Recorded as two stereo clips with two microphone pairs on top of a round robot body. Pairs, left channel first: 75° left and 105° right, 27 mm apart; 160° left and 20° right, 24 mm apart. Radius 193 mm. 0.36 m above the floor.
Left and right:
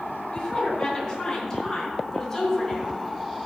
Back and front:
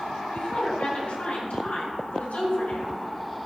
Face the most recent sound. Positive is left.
turn(degrees=155)